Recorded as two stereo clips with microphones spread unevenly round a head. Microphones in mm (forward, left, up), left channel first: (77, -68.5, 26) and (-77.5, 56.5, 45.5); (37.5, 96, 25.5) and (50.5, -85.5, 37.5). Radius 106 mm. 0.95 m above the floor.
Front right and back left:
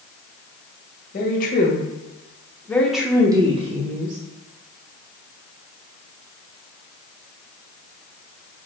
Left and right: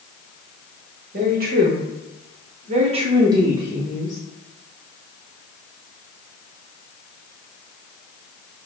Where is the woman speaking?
60° right, 1.5 m; by 4.2 s straight behind, 1.2 m.